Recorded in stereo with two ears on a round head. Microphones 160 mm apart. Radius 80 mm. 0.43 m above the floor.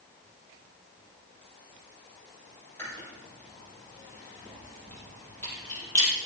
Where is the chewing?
10° left (ahead or behind), 5.5 m.